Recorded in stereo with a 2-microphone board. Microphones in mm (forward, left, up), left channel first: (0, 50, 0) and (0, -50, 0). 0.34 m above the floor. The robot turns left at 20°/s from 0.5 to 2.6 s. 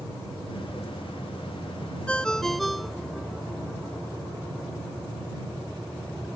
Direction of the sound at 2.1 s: 10° left (ahead or behind).